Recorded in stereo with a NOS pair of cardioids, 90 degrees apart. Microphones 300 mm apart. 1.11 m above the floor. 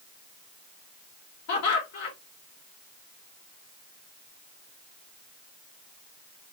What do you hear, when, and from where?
1.5 s laughter: 65° left, 2 m